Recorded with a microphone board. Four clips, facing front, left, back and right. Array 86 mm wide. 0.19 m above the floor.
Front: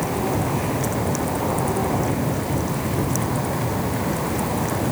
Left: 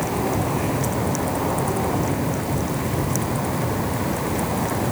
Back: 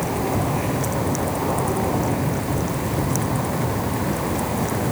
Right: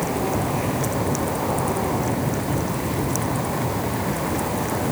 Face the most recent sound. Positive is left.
No sound to turn to.